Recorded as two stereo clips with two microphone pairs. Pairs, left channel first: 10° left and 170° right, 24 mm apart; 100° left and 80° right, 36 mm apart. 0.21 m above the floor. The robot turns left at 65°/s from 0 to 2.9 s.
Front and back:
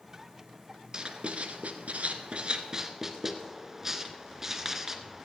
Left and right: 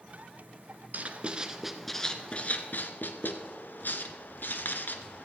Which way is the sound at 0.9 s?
115° right.